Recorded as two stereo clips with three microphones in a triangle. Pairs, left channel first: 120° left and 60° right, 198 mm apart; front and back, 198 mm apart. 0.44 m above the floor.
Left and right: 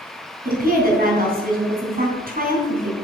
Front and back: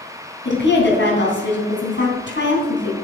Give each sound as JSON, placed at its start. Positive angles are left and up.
{"t": 0.5, "sound": "a woman speaking", "azimuth_deg": -20, "distance_m": 3.0}